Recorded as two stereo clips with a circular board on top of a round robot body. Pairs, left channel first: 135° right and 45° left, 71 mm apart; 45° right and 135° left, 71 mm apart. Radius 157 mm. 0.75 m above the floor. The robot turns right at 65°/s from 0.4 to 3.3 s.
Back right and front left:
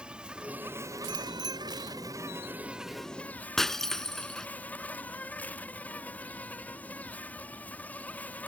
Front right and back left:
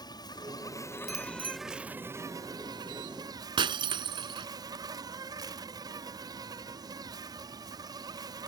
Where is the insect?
30° right; by 8.5 s 155° left.